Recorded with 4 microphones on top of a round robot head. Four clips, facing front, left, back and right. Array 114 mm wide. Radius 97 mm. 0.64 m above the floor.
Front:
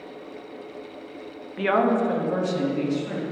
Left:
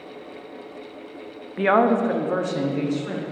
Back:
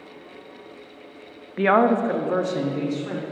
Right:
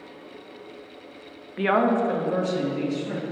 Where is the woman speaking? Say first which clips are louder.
Left 3 dB, back 3 dB; 160° left, 0.6 m; by 3.2 s 135° left, 1.8 m.